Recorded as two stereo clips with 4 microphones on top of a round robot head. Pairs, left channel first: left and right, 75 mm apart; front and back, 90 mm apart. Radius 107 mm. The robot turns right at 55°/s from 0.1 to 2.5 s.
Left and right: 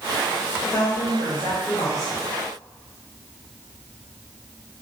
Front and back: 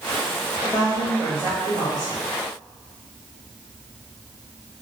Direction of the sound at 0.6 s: 60° left.